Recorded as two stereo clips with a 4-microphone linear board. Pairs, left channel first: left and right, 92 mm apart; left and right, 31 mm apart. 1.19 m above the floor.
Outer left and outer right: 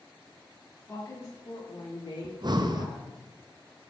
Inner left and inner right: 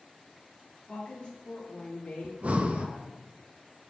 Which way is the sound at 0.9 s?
30° left (ahead or behind).